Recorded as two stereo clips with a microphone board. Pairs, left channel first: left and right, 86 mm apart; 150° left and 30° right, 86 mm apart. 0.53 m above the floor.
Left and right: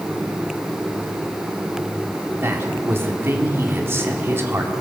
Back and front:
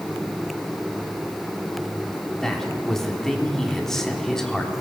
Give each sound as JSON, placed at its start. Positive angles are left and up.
{"t": 2.4, "sound": "a man speaking", "azimuth_deg": -130, "distance_m": 1.5}